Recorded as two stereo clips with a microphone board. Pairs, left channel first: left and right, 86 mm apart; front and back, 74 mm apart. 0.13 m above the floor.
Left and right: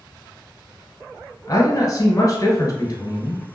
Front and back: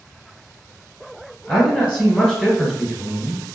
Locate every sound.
1.5 s a man speaking: 65° left, 1.5 m